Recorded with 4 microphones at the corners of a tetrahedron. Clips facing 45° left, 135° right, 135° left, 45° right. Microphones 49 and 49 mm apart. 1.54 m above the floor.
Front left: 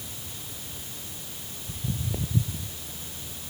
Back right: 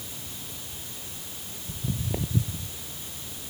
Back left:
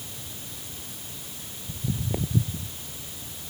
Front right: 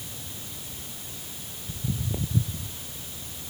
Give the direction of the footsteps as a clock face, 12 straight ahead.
6 o'clock.